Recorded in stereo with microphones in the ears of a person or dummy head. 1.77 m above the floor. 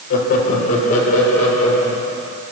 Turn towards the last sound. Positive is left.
turn(degrees=45)  # may be behind; listen again after turning